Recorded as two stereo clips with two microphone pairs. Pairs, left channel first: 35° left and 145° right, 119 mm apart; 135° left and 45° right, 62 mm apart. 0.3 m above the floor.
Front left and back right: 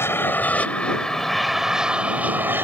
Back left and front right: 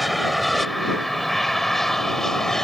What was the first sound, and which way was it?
An aircraft, 40° left.